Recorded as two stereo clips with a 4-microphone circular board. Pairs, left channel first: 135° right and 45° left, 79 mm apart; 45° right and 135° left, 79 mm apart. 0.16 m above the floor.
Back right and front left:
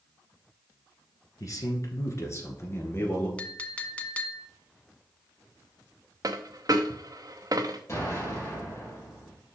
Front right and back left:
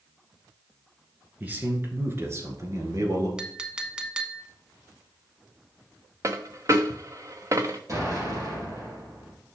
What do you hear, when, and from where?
1.4 s a man speaking: 160° right, 1.8 m; by 3.3 s 170° left, 2 m
3.4 s a clink: 170° right, 0.8 m
6.2 s a dropped coin: 85° left, 0.9 m
7.9 s an explosion: 175° left, 4 m